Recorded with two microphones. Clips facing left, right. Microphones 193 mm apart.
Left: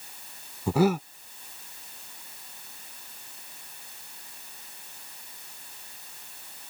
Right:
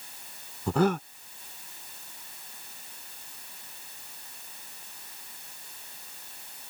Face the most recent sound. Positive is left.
turn(degrees=10)  # may be behind; listen again after turning